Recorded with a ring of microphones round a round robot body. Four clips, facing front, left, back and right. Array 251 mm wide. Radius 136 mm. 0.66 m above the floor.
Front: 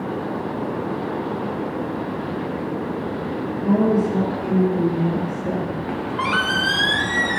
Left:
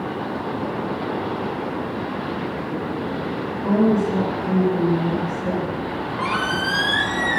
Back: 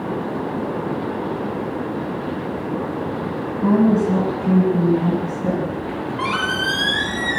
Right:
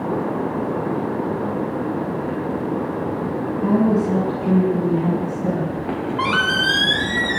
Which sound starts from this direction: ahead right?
A squeak, at 5.8 s.